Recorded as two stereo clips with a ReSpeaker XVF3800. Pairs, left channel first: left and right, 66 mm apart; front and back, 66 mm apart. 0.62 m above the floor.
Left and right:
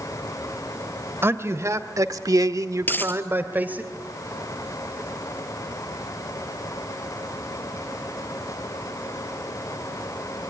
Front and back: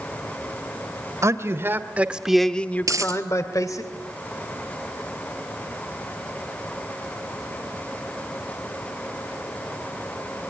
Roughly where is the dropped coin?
Behind left.